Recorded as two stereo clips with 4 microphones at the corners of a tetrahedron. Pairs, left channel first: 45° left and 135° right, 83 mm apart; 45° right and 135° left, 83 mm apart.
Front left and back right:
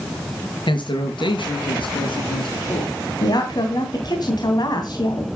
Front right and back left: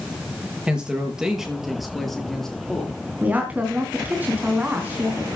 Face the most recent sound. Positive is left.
turn(degrees=70)